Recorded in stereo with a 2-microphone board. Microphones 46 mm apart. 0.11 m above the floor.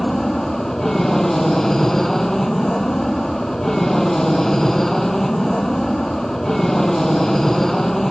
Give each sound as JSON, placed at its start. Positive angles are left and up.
{"t": 0.0, "sound": "an aircraft", "side_deg": 10}